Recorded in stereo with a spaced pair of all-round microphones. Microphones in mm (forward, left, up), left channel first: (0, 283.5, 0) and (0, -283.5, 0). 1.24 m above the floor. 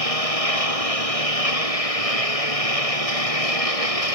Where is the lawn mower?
80° left.